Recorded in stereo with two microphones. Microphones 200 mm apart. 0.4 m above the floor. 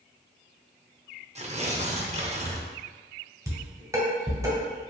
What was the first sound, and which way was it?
Tearing paper, 35° right (ahead or behind).